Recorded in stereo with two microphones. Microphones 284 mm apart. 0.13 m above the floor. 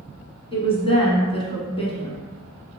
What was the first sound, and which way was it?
A woman speaking, 20° left (ahead or behind).